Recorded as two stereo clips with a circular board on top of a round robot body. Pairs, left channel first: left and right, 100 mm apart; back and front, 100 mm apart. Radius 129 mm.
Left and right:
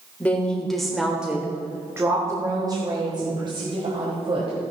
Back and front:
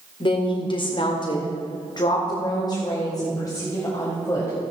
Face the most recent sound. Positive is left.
turn(degrees=-120)